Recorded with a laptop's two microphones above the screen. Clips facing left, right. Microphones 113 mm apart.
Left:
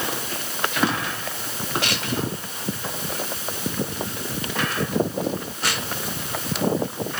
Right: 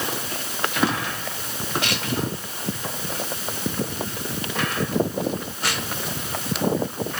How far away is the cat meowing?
I don't hear a cat meowing.